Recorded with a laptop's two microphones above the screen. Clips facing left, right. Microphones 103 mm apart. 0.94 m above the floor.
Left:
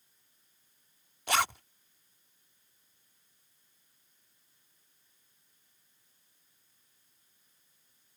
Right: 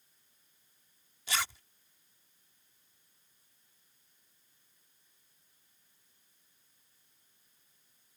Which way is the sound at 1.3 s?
60° left (ahead or behind).